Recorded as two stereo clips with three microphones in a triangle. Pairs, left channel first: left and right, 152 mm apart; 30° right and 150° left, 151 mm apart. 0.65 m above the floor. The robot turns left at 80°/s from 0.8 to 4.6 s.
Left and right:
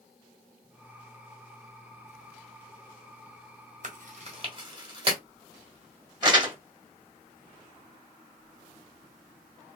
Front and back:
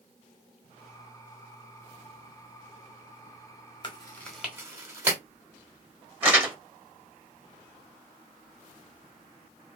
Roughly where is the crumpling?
Behind right.